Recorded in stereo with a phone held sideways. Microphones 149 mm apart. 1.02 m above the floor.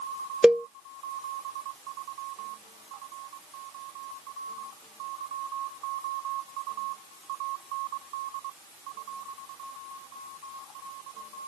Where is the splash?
I don't hear a splash.